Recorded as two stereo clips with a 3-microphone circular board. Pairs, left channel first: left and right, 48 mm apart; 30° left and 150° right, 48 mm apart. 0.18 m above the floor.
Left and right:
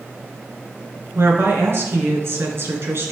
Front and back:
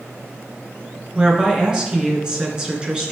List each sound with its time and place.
1.1 s a woman speaking: 80° right, 2.5 m